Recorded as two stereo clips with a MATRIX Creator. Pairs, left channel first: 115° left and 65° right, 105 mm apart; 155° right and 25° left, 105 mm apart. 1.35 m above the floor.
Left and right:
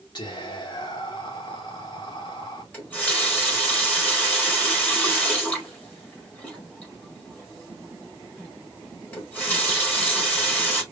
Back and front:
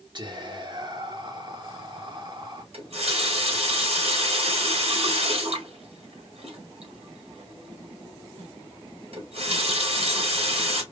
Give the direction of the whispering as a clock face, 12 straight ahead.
10 o'clock.